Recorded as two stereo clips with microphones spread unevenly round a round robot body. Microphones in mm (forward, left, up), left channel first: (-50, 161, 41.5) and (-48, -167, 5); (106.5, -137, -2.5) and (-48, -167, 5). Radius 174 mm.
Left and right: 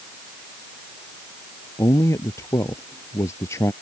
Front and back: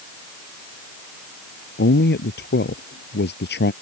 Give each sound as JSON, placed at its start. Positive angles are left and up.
{"t": 1.8, "sound": "a man speaking", "azimuth_deg": 10}